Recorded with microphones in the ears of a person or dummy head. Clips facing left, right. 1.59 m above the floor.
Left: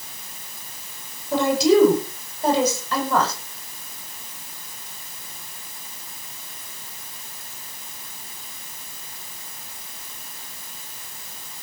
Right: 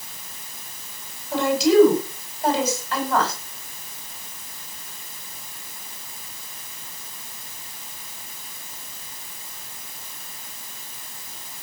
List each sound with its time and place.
1.3 s a woman speaking: 80° left, 9 m